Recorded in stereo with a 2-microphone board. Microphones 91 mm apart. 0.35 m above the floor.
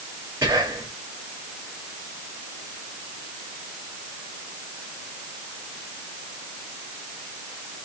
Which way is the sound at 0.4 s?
30° right (ahead or behind).